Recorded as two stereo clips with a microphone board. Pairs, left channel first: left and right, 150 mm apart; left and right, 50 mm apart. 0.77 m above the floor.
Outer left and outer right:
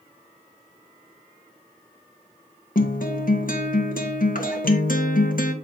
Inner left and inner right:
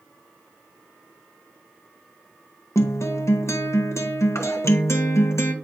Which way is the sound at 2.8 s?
65° left (ahead or behind).